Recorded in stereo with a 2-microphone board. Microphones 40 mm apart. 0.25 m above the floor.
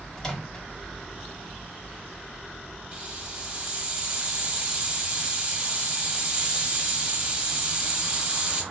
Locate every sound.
0.2 s a microwave: 15° left (ahead or behind), 0.7 m
2.9 s a hiss: 25° right (ahead or behind), 1.0 m